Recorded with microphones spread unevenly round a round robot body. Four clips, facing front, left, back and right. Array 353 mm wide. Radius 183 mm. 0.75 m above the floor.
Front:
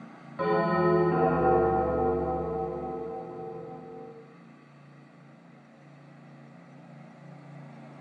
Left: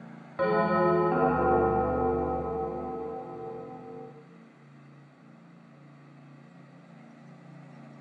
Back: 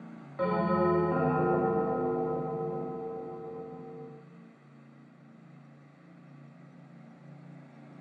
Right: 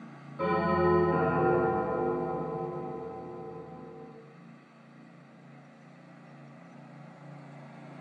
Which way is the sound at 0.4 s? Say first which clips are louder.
Left 2 dB, front 3 dB; 65° left.